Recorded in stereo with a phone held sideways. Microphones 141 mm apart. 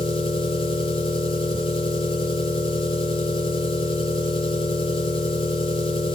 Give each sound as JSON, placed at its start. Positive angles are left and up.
{"t": 0.0, "sound": "an engine running", "side_deg": 40, "distance_m": 6.5}